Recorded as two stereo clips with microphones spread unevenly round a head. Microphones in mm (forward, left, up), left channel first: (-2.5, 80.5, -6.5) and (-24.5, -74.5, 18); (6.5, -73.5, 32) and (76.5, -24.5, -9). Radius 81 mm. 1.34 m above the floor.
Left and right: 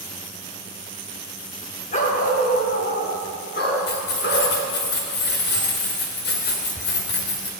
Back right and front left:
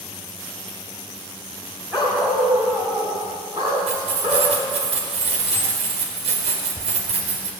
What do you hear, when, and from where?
1.9 s a dog barking: 130° left, 3.5 m; by 4.5 s 105° left, 6 m
3.9 s keys jangling: 55° left, 3.5 m